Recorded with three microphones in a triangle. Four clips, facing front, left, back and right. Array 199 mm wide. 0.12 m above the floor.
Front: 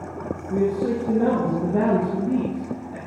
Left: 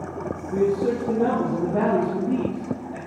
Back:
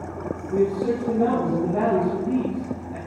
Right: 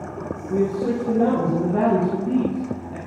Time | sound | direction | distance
0.5 | a man speaking | 95° right | 4.5 m